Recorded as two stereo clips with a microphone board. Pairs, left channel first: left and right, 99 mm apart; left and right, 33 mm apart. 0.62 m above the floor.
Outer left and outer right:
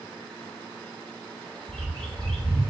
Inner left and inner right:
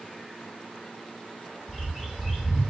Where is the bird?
10° left (ahead or behind), 1.1 m.